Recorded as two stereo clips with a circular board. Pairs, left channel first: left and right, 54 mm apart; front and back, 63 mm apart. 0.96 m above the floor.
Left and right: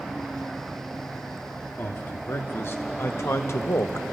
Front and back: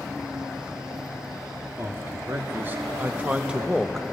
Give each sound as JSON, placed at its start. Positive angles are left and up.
{"t": 1.8, "sound": "a man speaking", "azimuth_deg": 135, "distance_m": 2.0}